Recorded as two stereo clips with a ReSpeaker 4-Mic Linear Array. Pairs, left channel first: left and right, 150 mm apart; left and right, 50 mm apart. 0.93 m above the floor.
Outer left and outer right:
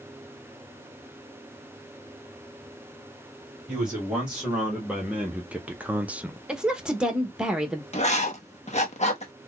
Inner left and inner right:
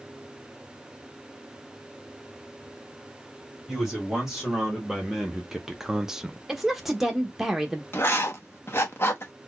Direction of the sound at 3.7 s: 5° right (ahead or behind).